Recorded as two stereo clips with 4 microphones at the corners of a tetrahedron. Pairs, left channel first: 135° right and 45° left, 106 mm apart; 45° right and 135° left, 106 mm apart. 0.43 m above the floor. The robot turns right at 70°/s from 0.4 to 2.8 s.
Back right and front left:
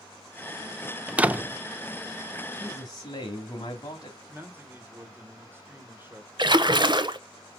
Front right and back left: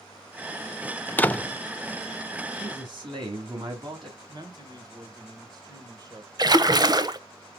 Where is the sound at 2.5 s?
155° left, 2.5 m; by 4.2 s 175° left, 2.5 m.